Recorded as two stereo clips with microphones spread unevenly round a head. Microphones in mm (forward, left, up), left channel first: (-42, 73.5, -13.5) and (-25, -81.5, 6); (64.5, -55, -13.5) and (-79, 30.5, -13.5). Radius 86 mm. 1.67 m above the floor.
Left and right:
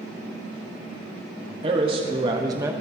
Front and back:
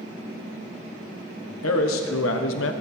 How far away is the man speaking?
About 1.4 m.